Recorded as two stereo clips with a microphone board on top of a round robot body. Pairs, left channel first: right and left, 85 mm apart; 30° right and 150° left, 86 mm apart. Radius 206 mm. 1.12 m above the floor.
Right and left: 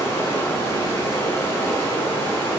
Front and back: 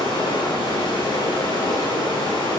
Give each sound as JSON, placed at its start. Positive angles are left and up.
{"t": 0.0, "sound": "running water", "azimuth_deg": -30, "distance_m": 6.0}